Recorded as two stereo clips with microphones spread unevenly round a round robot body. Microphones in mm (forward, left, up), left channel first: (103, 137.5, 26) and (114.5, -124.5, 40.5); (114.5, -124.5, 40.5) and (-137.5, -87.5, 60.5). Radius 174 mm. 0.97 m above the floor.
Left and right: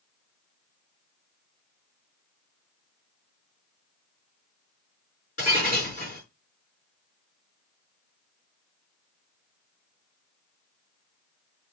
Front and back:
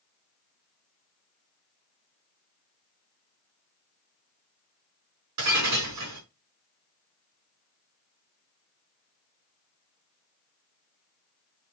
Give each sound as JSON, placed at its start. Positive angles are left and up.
{"t": 5.4, "sound": "breaking glass", "azimuth_deg": 160, "distance_m": 6.0}